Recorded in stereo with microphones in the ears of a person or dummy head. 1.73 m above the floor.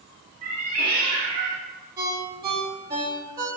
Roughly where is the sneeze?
No sneeze in this recording.